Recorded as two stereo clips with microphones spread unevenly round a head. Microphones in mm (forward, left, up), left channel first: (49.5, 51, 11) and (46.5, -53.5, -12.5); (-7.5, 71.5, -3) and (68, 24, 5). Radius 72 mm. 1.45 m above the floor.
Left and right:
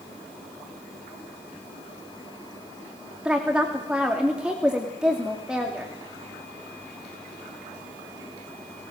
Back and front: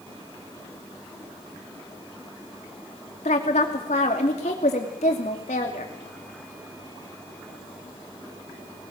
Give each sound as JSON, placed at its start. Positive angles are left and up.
{"t": 3.2, "sound": "a woman speaking", "azimuth_deg": 180, "distance_m": 2.5}